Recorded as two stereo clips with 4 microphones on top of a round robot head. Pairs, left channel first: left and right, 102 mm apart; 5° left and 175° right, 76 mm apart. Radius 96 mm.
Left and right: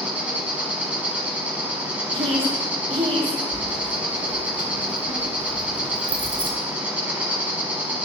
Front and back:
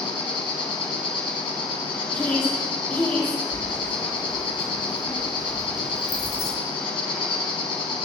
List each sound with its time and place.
0.0 s an insect: 15° right, 1.2 m
2.1 s a woman speaking: 65° right, 1.9 m
3.5 s keys jangling: 50° right, 1.0 m